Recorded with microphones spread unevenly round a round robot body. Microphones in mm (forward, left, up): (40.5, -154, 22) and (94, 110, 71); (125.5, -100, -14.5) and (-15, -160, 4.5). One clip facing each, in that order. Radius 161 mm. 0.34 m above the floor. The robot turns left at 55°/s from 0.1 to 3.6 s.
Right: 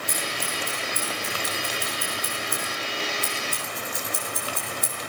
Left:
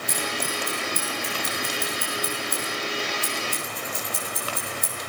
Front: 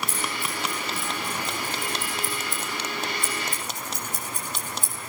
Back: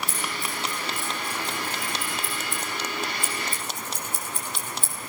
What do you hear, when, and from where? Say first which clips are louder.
0.1 s scissors: left 5 dB, front 1 dB; 170° left, 9.5 m; by 4.9 s 25° right, 9.5 m